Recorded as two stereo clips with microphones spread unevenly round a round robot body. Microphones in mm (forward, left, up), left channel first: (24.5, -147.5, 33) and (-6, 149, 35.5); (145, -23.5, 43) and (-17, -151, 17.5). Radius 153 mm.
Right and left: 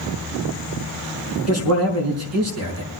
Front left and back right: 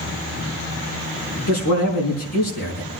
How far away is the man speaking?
About 5.5 m.